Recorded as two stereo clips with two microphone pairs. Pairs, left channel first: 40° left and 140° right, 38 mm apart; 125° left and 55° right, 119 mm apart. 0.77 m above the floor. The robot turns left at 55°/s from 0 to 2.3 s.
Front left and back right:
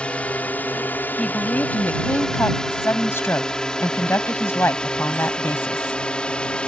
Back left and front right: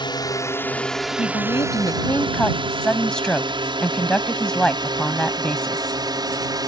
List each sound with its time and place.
0.0 s a drone: 90° left; by 6.7 s 15° right
1.2 s a woman speaking: 105° left; by 6.0 s 40° left